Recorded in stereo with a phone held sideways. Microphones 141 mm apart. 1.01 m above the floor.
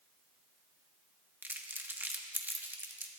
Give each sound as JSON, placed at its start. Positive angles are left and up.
{"t": 1.4, "sound": "crumpling", "side_deg": -15, "distance_m": 0.9}